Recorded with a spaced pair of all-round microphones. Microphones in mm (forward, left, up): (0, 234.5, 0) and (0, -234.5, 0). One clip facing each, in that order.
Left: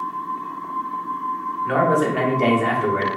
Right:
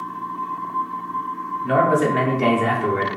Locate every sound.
1.6 s a man speaking: 55° right (ahead or behind), 0.9 m; by 3.1 s 5° right (ahead or behind), 0.9 m